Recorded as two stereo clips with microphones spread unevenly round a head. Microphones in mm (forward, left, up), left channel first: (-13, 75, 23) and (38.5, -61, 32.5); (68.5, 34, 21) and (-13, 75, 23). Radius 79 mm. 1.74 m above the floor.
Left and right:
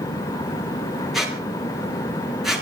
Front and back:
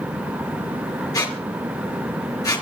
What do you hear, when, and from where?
1.1 s a squeak: 20° left, 4.5 m